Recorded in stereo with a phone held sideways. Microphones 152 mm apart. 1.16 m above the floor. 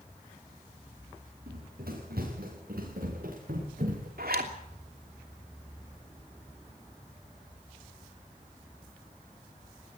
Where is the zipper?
80° right, 3 m.